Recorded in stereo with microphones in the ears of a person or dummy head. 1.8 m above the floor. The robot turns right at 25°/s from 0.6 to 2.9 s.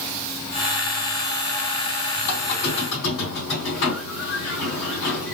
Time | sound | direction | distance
2.2 | a squeak | 50° left (ahead or behind) | 2.5 m